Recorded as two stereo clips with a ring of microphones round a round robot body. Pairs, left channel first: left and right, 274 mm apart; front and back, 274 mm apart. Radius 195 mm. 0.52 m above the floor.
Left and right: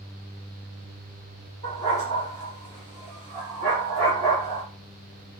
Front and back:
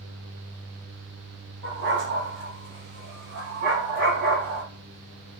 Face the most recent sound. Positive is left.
turn(degrees=-140)